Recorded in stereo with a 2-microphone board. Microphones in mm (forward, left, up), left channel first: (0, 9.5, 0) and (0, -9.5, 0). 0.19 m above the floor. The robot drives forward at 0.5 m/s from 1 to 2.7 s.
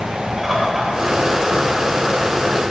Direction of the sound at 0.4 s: 5° right (ahead or behind).